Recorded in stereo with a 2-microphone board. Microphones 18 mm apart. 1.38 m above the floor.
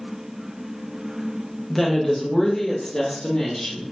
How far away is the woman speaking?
About 1.0 m.